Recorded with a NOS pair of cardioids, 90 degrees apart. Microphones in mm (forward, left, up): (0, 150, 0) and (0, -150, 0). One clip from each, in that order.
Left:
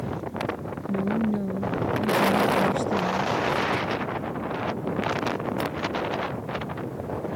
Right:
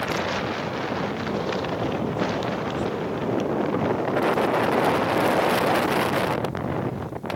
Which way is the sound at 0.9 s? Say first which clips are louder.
Right 1 dB; 70° left.